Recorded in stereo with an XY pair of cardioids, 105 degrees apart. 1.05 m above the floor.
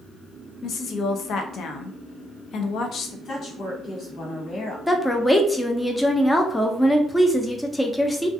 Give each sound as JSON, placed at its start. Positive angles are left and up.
{"t": 0.6, "sound": "a woman speaking", "azimuth_deg": 60, "distance_m": 0.5}
{"t": 3.2, "sound": "a woman speaking", "azimuth_deg": 50, "distance_m": 1.7}
{"t": 4.9, "sound": "a woman speaking", "azimuth_deg": 10, "distance_m": 0.6}